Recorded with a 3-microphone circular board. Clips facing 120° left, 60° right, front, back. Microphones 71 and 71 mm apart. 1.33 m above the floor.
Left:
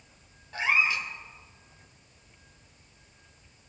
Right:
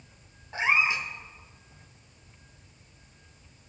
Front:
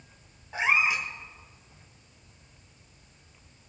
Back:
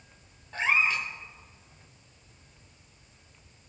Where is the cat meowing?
55° right, 1.1 m.